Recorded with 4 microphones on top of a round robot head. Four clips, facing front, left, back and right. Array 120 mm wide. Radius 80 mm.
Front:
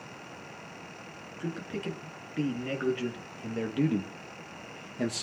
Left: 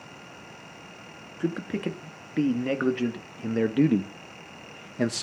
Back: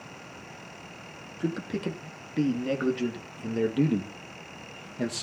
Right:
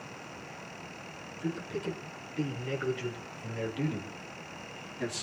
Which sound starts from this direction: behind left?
A man speaking, at 1.4 s.